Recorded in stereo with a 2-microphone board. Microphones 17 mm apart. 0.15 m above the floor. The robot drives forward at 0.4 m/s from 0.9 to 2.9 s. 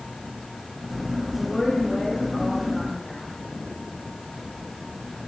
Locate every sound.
1.4 s a woman speaking: 15° right (ahead or behind), 7.5 m